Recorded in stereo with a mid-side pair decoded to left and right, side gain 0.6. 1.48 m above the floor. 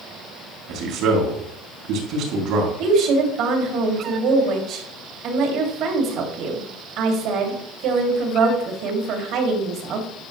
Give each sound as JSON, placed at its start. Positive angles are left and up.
{"t": 0.7, "sound": "a man speaking", "azimuth_deg": -70, "distance_m": 3.5}
{"t": 2.8, "sound": "a woman speaking", "azimuth_deg": -70, "distance_m": 3.0}